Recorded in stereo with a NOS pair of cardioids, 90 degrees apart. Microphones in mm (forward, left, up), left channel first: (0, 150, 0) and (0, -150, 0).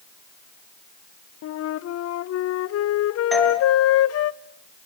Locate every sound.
1.4 s a flute: 55° left, 0.7 m
3.3 s a doorbell: straight ahead, 5.5 m